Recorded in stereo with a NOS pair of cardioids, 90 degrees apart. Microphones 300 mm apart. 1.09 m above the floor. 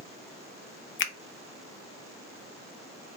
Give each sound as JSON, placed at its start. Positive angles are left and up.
{"t": 1.0, "sound": "a finger snap", "azimuth_deg": 45, "distance_m": 0.6}